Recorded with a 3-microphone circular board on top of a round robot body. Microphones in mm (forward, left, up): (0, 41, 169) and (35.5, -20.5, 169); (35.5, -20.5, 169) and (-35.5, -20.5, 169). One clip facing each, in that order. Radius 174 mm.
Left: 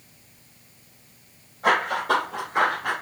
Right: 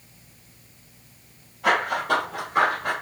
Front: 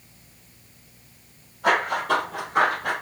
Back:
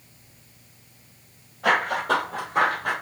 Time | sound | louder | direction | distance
1.6 | running footsteps | left 1 dB, even | 170° left | 1.1 m